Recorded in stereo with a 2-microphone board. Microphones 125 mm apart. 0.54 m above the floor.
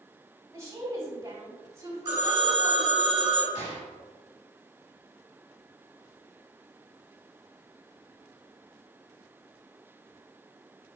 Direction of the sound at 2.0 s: 35° right (ahead or behind).